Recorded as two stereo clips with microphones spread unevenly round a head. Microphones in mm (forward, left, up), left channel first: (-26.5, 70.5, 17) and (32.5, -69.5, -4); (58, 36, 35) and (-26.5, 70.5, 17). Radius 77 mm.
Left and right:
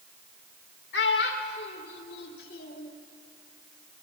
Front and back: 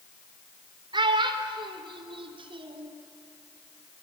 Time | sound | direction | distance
0.9 | a child speaking | 130° left | 4 m